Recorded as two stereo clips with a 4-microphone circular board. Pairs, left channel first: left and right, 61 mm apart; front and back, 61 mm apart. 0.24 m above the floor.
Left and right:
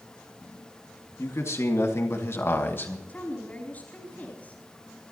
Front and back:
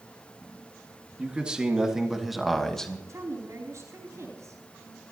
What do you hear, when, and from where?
1.2 s a man speaking: 110° left, 2.5 m; by 3.0 s 70° left, 1.7 m
3.1 s a woman speaking: 150° left, 4 m